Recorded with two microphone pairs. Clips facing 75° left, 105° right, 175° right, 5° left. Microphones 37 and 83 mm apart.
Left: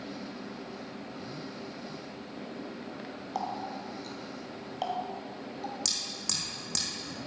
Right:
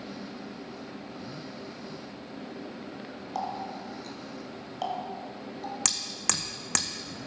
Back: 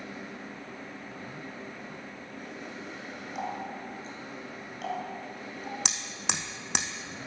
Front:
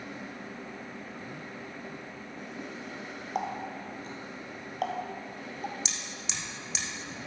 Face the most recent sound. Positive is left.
turn(degrees=-145)